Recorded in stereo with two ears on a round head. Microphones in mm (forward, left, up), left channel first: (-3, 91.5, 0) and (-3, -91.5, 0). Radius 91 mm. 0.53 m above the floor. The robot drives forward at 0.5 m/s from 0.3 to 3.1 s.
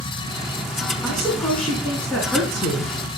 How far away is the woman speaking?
About 5 m.